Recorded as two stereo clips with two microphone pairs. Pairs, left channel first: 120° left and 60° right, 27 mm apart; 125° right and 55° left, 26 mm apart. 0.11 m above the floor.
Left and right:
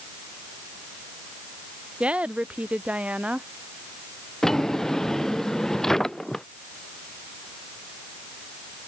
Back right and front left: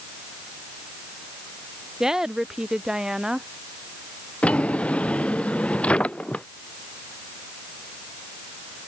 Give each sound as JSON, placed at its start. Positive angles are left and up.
{"t": 2.0, "sound": "a woman speaking", "azimuth_deg": -15}
{"t": 4.4, "sound": "a drawer", "azimuth_deg": -170}